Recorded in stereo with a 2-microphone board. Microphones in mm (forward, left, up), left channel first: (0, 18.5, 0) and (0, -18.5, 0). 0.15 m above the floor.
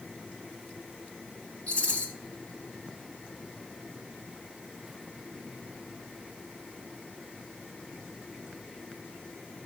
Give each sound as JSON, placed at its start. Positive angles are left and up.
{"t": 1.7, "sound": "a rattle", "side_deg": 40, "distance_m": 2.5}